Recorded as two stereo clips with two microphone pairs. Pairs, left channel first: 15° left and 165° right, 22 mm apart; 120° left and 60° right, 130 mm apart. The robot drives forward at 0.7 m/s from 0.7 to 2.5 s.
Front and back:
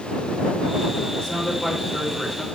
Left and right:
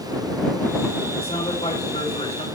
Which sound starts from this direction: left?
A man speaking, at 1.2 s.